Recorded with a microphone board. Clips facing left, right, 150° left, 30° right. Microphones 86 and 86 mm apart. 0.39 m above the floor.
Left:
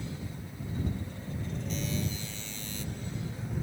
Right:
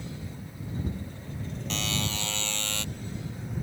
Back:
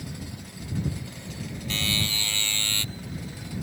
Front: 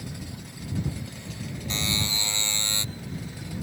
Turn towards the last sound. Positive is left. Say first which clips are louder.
# right 3 dB, even
turn(degrees=-100)